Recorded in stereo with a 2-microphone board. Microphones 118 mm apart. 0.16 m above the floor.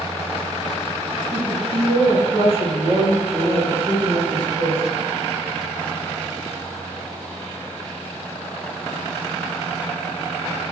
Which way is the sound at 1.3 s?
45° right (ahead or behind).